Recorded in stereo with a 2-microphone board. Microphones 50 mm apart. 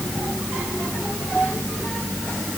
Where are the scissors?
No scissors in this recording.